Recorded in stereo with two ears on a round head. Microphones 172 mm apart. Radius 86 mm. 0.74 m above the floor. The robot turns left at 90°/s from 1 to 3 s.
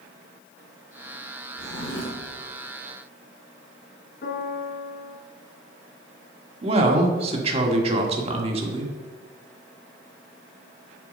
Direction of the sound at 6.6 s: 35° right (ahead or behind).